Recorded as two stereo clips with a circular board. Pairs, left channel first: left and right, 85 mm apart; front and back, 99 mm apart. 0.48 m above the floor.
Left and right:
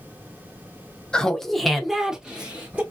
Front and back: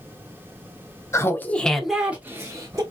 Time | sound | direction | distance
1.1 | laughter | 15° left | 0.7 m